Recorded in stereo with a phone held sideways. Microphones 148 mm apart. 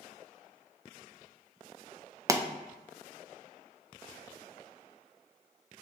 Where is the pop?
20° right (ahead or behind), 0.5 m.